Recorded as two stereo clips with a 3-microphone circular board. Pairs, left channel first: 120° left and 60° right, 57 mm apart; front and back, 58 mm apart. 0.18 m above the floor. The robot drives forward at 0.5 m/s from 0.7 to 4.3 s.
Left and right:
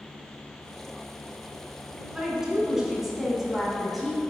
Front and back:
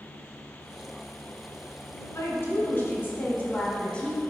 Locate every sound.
2.1 s a woman speaking: 15° left, 1.9 m; by 4.2 s 45° left, 1.4 m